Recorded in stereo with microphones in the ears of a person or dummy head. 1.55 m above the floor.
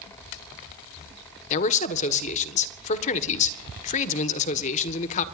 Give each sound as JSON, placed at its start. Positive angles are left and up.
{"t": 1.5, "sound": "a man speaking", "side_deg": 45, "distance_m": 1.5}